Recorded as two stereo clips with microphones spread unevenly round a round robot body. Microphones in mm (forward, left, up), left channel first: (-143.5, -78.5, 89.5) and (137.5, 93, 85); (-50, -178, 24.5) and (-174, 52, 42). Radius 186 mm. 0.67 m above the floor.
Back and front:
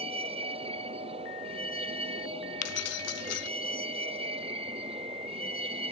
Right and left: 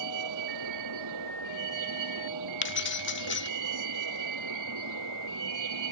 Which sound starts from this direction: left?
A vehicle, at 0.0 s.